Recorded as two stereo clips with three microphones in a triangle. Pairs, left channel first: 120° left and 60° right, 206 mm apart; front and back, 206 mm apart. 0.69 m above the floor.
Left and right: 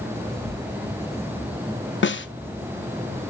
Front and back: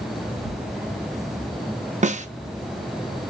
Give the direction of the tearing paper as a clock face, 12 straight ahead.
10 o'clock.